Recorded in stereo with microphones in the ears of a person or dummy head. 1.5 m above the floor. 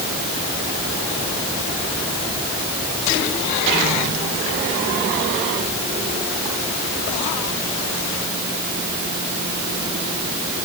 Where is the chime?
No chime in this recording.